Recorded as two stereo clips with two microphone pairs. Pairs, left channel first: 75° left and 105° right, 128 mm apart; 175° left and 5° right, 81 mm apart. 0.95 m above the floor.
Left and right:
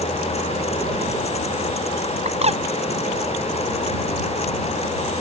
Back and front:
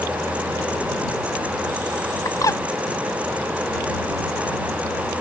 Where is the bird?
140° right.